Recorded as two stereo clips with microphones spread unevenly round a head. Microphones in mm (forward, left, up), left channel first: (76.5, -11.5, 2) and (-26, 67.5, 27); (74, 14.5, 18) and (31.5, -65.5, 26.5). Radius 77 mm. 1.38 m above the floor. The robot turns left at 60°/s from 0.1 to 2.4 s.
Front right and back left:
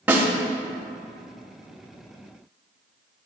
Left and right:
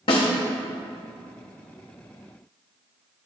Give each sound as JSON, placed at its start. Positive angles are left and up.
{"t": 0.1, "sound": "a snare drum", "azimuth_deg": 80, "distance_m": 1.2}